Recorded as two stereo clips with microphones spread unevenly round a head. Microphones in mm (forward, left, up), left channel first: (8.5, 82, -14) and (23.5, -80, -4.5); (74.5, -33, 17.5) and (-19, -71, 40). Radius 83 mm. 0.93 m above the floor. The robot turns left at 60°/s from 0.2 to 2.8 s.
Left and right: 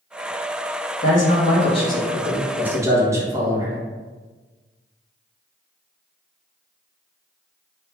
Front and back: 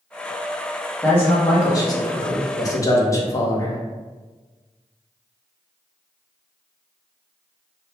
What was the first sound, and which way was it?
A man speaking, 95° left.